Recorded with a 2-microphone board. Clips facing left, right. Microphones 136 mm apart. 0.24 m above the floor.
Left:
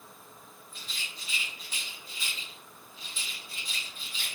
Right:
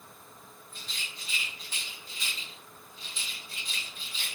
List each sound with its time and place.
0.7 s a rattle: 5° left (ahead or behind), 2.5 m